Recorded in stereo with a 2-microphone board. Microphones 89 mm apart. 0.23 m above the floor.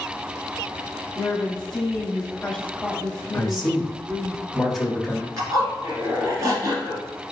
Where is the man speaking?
5° right (ahead or behind), 1.1 m.